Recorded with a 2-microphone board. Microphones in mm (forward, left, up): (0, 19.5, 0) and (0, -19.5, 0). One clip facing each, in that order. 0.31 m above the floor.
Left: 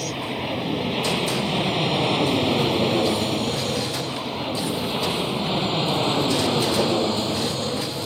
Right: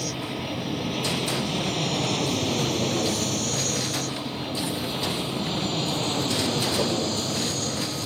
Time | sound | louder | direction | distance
0.0 | an aircraft | left 3 dB | 20° left (ahead or behind) | ?